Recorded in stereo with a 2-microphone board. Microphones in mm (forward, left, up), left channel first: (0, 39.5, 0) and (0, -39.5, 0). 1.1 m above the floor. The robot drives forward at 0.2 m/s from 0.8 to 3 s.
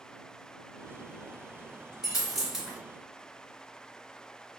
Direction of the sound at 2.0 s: 5° right (ahead or behind).